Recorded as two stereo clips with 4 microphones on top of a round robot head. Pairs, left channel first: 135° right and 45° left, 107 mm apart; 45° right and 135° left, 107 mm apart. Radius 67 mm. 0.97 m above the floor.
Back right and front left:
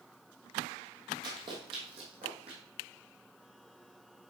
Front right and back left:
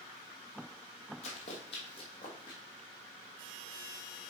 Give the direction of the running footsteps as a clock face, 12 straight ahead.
12 o'clock.